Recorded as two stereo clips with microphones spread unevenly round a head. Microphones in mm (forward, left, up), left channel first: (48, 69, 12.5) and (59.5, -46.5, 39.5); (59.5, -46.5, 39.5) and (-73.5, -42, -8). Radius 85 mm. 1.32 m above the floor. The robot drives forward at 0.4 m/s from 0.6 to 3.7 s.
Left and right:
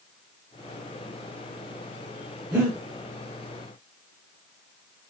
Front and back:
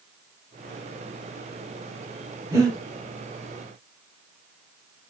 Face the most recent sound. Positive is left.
turn(degrees=-135)